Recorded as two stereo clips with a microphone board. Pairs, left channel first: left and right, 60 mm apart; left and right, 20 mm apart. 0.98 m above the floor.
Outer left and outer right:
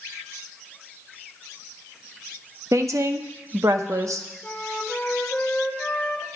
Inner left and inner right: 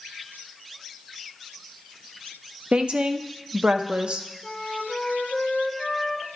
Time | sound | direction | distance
2.7 | a woman speaking | 60° right (ahead or behind) | 0.7 m
4.4 | a flute | 15° left (ahead or behind) | 1.2 m